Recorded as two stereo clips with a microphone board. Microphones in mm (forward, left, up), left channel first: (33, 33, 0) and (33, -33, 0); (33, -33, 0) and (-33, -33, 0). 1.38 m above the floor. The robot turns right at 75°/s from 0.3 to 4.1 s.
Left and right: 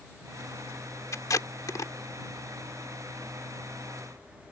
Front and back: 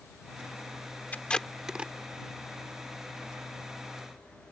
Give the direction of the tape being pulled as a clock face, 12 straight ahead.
10 o'clock.